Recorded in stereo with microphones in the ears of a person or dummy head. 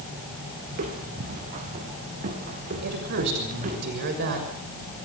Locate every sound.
0.7 s footsteps: 45° right (ahead or behind), 3 m; by 3.8 s 40° right (ahead or behind), 7.5 m
2.8 s a woman speaking: 55° right (ahead or behind), 6 m